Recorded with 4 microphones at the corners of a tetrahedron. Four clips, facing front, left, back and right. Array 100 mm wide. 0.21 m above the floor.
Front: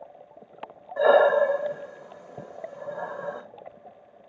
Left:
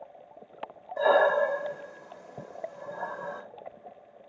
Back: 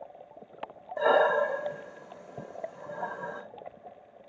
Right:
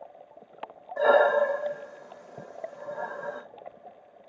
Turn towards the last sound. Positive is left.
turn(degrees=-25)